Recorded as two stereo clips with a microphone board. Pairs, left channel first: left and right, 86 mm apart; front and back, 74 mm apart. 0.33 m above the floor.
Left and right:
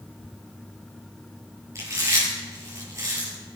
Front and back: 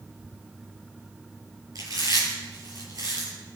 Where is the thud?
I don't hear a thud.